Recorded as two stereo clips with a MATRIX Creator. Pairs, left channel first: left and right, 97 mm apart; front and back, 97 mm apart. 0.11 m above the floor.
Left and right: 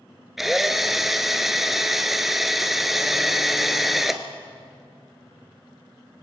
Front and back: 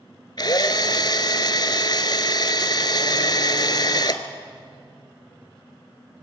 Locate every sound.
0.4 s a drill: 5° right, 1.1 m